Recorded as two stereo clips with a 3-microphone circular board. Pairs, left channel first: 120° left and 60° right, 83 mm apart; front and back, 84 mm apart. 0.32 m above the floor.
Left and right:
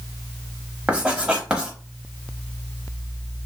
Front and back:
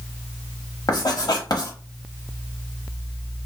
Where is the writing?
15° left, 1.0 m.